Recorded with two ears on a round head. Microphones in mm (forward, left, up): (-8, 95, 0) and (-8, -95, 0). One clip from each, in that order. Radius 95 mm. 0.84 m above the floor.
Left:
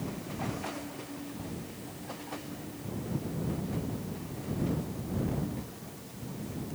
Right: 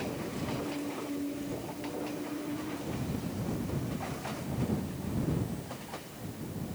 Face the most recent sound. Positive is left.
No sound to turn to.